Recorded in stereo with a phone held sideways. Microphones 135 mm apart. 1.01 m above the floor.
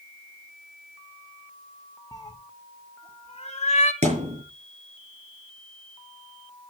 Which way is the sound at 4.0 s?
60° right (ahead or behind).